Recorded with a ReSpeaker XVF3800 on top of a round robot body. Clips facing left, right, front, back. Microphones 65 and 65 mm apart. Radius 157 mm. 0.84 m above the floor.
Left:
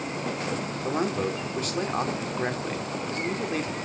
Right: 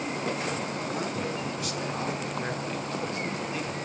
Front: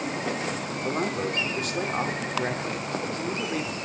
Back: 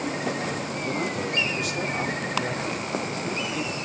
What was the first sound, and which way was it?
A man speaking, 45° left.